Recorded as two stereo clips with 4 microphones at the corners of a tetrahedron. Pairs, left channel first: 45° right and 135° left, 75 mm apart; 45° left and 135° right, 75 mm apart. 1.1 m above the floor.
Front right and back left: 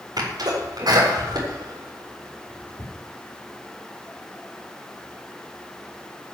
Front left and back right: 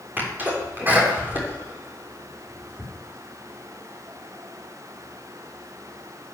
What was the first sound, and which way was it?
A sneeze, 160° left.